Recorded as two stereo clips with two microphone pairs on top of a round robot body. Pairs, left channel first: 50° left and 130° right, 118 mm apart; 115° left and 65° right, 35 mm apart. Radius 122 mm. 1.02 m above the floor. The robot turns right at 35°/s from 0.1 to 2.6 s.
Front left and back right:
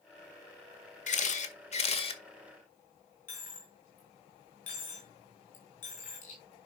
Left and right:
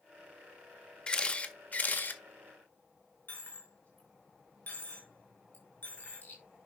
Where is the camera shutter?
50° left, 1.8 m; by 2.2 s 90° left, 1.8 m.